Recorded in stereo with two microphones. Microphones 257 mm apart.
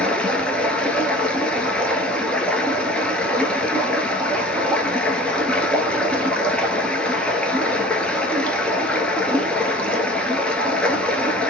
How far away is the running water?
About 0.8 m.